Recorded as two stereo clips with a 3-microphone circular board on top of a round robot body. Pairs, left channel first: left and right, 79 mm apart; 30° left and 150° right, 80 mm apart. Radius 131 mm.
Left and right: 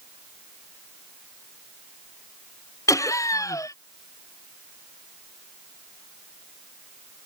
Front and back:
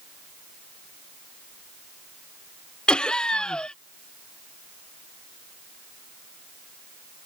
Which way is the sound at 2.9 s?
105° left.